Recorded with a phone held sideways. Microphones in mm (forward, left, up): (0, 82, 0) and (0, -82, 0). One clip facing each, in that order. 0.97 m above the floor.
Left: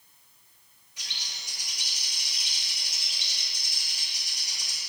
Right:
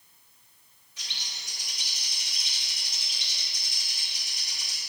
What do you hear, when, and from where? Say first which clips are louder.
1.0 s a bird: even; 15° left (ahead or behind), 2 m